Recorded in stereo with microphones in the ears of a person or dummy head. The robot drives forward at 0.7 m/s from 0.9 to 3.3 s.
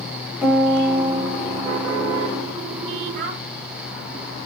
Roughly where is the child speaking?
Right.